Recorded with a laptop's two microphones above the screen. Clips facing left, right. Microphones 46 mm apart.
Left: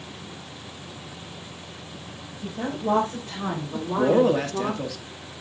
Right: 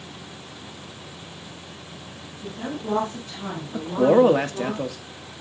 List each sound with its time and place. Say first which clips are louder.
2.4 s a woman speaking: left 3 dB; 85° left, 5 m; by 4.7 s 60° left (ahead or behind), 2 m
3.7 s a man speaking: right 3 dB; 25° right (ahead or behind), 1.5 m